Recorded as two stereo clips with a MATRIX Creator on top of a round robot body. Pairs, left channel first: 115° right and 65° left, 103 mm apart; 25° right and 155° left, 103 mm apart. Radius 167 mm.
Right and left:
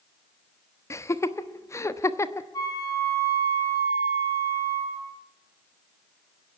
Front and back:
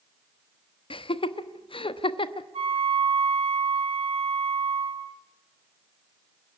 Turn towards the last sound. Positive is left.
turn(degrees=-170)